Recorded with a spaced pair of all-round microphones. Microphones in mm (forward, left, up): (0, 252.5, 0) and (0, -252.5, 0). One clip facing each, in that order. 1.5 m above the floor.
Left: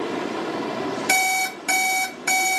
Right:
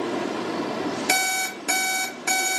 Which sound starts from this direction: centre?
An alarm clock, at 1.1 s.